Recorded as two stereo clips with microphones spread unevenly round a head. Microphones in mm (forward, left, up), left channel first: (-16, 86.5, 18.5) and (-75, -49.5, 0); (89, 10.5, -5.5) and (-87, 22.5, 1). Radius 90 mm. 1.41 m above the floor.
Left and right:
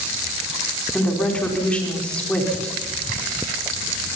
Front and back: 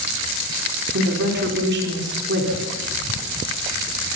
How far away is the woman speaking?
About 4.5 m.